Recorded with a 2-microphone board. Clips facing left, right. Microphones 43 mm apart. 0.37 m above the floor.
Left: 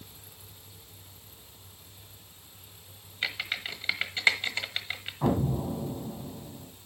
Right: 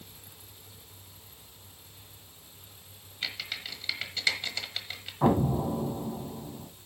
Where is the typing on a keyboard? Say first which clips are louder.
Left 4 dB; 35° left (ahead or behind), 1.2 m.